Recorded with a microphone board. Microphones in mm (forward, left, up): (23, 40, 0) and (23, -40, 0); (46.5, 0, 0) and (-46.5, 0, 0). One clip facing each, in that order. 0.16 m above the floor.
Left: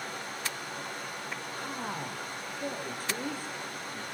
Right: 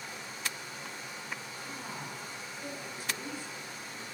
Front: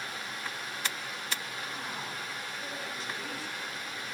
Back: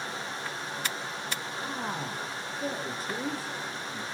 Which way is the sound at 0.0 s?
120° left.